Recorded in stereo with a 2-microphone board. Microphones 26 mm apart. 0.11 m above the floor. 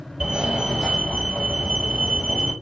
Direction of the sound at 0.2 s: 35° right (ahead or behind).